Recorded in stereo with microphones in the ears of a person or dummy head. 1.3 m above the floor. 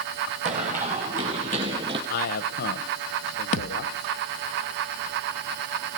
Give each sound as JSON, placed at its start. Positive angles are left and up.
{"t": 0.5, "sound": "running footsteps", "side_deg": -45, "distance_m": 3.5}
{"t": 2.1, "sound": "a man speaking", "side_deg": 50, "distance_m": 1.0}
{"t": 3.5, "sound": "a thud", "side_deg": 50, "distance_m": 1.1}